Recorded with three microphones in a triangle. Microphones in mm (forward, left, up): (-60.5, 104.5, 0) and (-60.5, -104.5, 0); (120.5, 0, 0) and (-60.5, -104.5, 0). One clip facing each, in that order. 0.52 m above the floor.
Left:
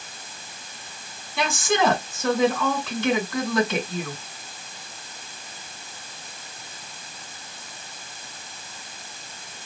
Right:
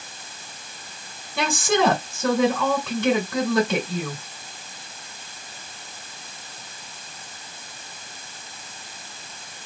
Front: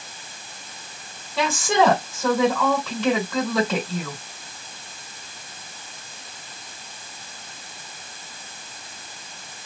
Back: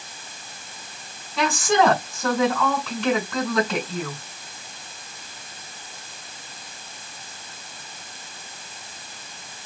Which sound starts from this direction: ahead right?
A woman speaking, at 1.4 s.